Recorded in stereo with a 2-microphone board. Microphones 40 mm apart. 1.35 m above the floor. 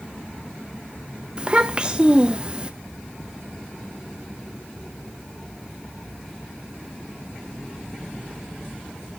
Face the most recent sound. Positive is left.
turn(degrees=-25)  # may be behind; listen again after turning